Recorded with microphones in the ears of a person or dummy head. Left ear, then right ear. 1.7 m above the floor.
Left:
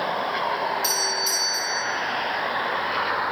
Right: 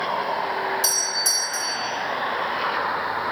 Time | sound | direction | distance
0.8 | a doorbell | 80° right | 1.9 m